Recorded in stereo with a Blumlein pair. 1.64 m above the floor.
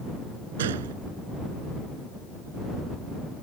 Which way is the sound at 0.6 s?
60° right.